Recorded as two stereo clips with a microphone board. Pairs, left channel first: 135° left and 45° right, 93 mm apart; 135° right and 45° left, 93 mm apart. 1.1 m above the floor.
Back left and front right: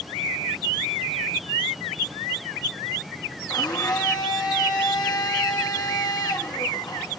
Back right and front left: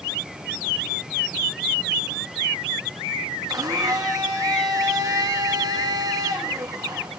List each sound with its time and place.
3.5 s a blender: 95° left, 1.8 m